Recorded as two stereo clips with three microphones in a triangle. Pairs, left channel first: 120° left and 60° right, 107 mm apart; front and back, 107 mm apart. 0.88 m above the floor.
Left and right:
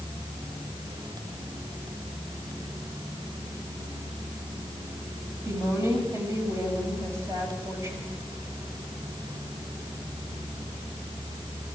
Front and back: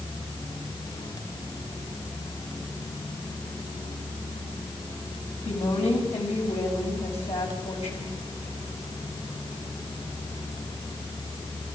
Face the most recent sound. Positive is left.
turn(degrees=5)